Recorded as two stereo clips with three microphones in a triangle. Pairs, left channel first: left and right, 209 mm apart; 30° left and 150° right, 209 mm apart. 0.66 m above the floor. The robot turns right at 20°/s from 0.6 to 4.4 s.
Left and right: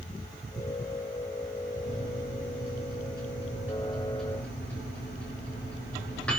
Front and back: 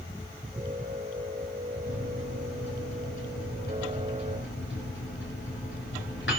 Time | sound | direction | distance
1.8 | a microwave | 45° right | 7.5 m